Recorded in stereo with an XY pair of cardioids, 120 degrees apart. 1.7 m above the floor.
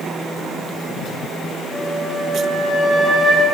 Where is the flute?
10° right, 2 m.